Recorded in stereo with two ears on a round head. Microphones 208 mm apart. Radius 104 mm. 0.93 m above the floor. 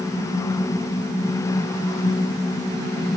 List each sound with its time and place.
Only background noise.